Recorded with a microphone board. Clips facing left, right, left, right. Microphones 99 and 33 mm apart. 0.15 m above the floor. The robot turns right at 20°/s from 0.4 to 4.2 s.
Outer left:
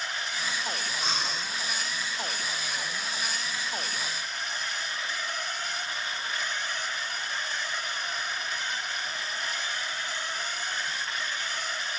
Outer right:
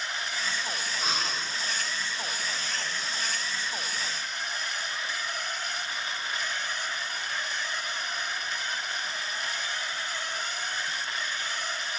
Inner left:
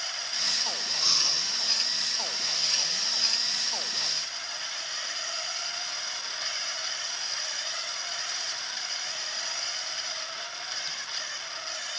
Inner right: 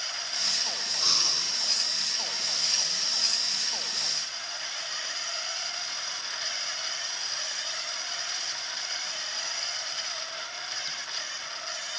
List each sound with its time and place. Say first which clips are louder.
1.0 s breathing: outer right 2 dB, even; 5° right (ahead or behind), 1.7 m